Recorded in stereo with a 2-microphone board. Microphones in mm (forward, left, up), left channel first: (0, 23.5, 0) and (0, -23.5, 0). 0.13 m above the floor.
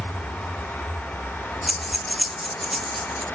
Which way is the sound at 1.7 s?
Centre (ahead or behind).